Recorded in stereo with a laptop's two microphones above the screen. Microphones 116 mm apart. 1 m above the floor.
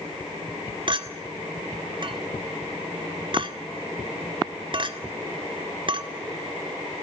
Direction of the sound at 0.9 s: 45° right (ahead or behind).